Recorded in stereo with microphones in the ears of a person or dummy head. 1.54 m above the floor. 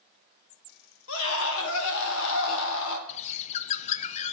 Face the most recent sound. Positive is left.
turn(degrees=40)  # may be behind; listen again after turning